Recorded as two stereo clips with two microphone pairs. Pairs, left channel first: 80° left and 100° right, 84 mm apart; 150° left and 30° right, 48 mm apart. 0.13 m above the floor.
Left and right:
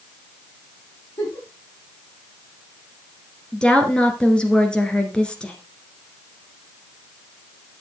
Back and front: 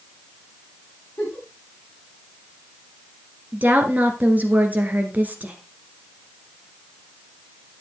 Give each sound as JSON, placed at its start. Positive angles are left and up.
{"t": 1.2, "sound": "a giggle", "azimuth_deg": 100, "distance_m": 6.5}
{"t": 3.5, "sound": "a woman speaking", "azimuth_deg": 5, "distance_m": 2.0}